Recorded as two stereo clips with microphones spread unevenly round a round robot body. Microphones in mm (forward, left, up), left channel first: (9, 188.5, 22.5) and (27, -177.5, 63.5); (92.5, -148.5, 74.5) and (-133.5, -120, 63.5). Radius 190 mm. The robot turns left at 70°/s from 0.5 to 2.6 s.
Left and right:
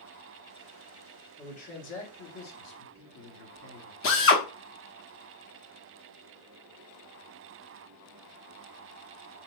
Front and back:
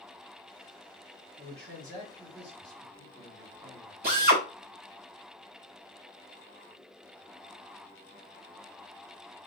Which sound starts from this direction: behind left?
A drill, at 4.0 s.